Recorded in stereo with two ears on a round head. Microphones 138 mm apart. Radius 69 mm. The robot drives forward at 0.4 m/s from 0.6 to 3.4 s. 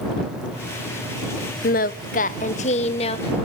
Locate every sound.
1.6 s singing: 60° left (ahead or behind), 0.7 m; by 3.5 s 35° left (ahead or behind), 1.0 m